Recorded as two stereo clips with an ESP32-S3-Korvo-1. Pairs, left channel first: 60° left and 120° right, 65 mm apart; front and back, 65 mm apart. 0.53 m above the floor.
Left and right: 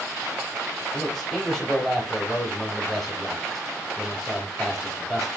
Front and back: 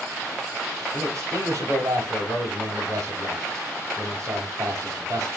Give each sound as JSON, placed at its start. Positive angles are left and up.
{"t": 0.9, "sound": "a man speaking", "azimuth_deg": 145, "distance_m": 3.5}